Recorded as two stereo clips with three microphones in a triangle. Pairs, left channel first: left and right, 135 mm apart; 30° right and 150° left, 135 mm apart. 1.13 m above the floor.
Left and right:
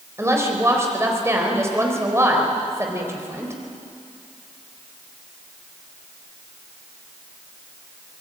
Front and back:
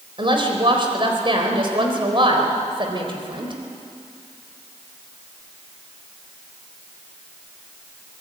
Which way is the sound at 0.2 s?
160° right.